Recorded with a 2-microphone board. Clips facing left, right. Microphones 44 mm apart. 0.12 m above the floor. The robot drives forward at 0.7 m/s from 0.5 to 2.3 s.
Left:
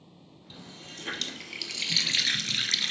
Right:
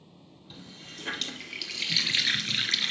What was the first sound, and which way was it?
A running tap, 5° right (ahead or behind).